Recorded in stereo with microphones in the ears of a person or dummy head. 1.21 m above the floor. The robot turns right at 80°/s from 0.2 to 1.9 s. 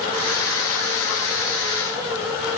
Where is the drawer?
No drawer in this recording.